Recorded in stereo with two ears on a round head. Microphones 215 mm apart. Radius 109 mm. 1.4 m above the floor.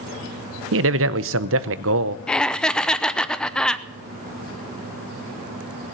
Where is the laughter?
5° left (ahead or behind), 0.7 m.